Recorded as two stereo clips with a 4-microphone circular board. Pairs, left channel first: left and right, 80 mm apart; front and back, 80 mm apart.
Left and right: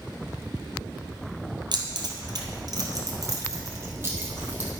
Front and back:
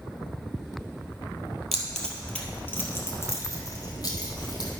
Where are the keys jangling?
90° right, 2 m; by 4.7 s 20° right, 2.5 m.